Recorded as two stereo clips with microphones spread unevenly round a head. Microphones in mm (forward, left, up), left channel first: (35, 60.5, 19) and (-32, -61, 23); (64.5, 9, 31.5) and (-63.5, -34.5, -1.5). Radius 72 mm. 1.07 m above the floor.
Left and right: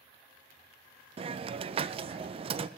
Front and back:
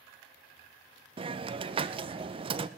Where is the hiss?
160° right, 0.5 m.